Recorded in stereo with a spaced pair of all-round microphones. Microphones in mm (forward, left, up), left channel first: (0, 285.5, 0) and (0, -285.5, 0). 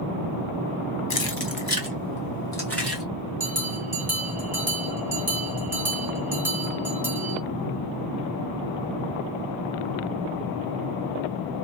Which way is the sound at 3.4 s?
45° right (ahead or behind).